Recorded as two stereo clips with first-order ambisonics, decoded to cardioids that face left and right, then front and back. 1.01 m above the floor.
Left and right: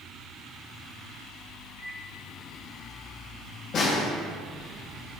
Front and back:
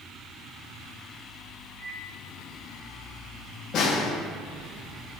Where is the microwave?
65° left, 1.7 m.